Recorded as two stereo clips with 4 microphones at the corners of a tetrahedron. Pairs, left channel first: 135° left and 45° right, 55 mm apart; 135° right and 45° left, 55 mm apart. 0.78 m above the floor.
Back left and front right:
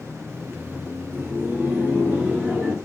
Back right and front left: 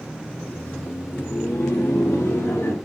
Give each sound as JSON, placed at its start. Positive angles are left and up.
{"t": 0.3, "sound": "laughter", "azimuth_deg": -80, "distance_m": 0.5}